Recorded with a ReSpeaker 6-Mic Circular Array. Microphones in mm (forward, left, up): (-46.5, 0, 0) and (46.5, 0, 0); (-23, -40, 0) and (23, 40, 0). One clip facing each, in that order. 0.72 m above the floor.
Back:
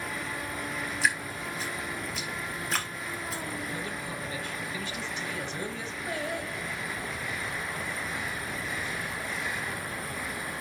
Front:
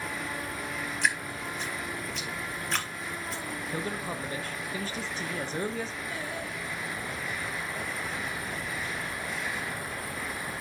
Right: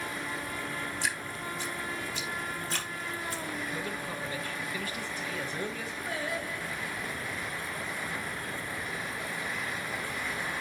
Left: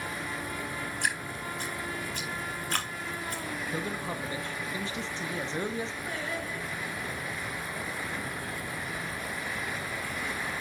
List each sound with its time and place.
1.0 s dripping: 95° left, 1.4 m
3.7 s a man speaking: 15° left, 1.1 m
6.1 s singing: 160° left, 3 m